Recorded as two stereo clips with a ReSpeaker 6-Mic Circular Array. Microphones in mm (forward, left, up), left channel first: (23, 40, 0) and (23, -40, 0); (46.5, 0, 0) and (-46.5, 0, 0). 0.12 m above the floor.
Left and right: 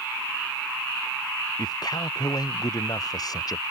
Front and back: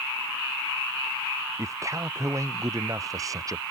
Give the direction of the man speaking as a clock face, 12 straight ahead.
8 o'clock.